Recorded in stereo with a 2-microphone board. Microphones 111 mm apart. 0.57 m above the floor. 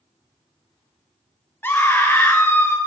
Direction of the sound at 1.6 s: 20° left (ahead or behind).